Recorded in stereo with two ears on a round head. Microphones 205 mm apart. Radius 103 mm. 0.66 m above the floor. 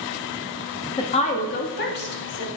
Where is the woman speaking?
20° left (ahead or behind), 1.0 m; by 2.5 s 55° left (ahead or behind), 1.8 m.